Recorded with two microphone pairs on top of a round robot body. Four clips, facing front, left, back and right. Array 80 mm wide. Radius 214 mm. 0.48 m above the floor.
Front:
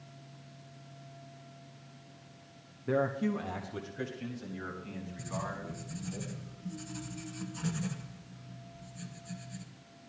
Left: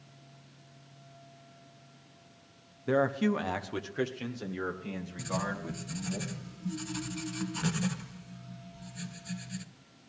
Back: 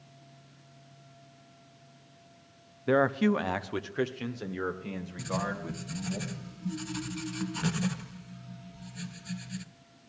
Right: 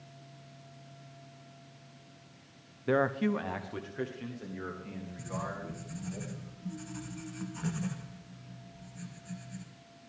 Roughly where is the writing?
Behind left.